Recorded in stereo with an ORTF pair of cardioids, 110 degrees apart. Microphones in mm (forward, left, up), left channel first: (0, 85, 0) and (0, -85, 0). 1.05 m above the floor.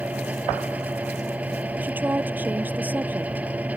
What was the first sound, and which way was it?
A fan, 10° right.